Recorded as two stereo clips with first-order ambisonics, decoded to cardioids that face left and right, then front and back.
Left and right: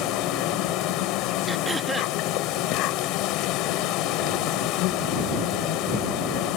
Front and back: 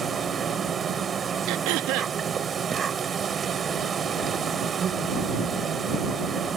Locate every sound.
0.0 s an insect: 115° left
1.5 s throat clearing: 170° right